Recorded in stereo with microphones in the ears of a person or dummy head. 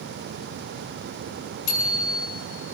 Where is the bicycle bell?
80° left, 8 m.